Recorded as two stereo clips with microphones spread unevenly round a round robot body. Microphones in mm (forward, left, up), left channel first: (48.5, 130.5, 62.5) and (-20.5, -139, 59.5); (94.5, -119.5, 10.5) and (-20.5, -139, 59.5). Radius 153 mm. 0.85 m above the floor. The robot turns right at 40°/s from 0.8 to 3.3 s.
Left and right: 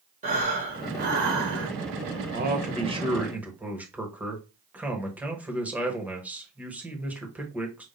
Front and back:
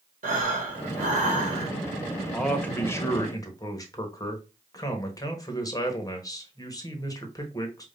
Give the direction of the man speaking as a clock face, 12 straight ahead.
2 o'clock.